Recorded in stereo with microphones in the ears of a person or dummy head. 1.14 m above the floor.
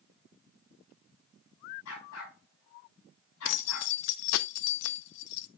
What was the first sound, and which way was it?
A dog barking, 75° left (ahead or behind).